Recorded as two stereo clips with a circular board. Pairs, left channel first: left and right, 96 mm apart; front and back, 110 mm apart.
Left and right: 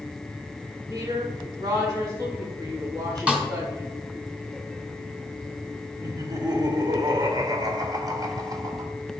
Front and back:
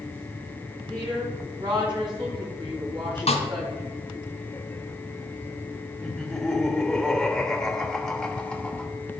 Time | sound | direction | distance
0.9 | a woman speaking | 140° right | 4 m
3.3 | a snare drum | 10° right | 1.9 m
6.0 | laughter | 85° right | 1.3 m